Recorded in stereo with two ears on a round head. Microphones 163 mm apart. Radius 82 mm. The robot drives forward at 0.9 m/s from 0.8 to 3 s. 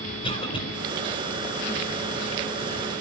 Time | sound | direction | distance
0.2 | a cough | 30° left (ahead or behind) | 4 m